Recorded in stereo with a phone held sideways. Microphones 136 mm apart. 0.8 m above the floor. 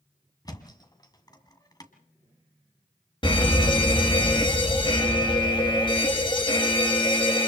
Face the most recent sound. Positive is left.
turn(degrees=40)  # may be behind; listen again after turning